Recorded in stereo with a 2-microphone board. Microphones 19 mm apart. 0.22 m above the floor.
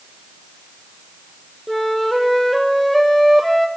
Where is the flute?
5° left (ahead or behind), 1.5 m.